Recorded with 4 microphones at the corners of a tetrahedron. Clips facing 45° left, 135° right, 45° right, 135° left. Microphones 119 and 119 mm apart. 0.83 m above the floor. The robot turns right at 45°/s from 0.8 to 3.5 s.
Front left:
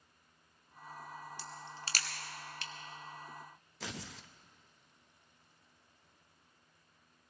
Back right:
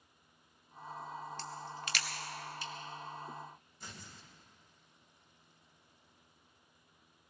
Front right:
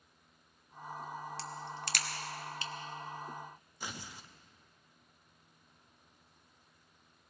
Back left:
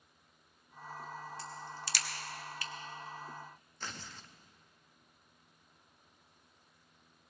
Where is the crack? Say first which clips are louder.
Back right 4 dB, front right 2 dB; 35° right, 1.0 m; by 2.7 s 25° left, 1.0 m.